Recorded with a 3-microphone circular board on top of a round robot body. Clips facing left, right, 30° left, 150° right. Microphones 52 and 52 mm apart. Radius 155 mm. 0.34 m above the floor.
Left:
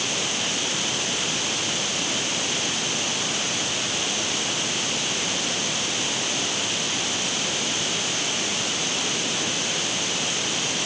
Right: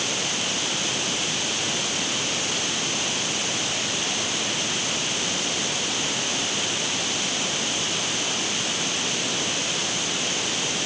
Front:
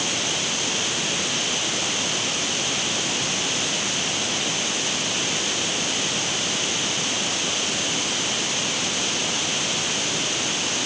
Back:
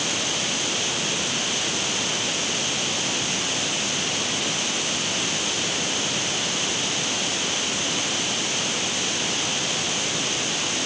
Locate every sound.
Only background noise.